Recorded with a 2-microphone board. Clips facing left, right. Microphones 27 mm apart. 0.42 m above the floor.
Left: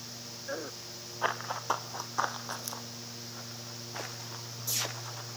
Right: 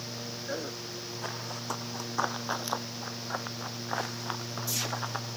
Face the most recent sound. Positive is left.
turn(degrees=-80)